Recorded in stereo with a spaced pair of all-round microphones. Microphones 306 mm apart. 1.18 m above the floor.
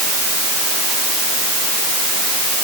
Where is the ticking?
I don't hear ticking.